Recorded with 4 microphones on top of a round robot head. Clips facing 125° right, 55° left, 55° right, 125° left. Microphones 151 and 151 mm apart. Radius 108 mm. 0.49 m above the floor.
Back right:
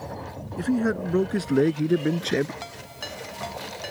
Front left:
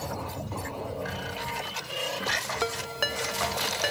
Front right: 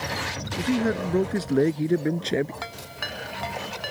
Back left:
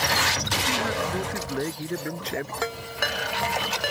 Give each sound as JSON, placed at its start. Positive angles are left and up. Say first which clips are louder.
{"t": 0.6, "sound": "a man speaking", "louder": "back right 14 dB, front right 6 dB", "azimuth_deg": -110}
{"t": 2.6, "sound": "a ringtone", "louder": "front left 8 dB, back left 7 dB", "azimuth_deg": 85}